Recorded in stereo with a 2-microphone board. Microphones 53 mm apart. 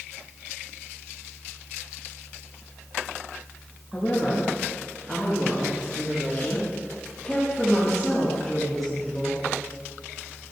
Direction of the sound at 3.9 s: 15° left (ahead or behind).